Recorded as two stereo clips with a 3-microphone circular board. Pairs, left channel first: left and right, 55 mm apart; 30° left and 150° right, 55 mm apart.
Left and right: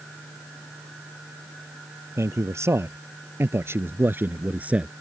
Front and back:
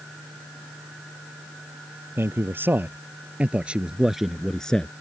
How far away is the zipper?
No zipper in this recording.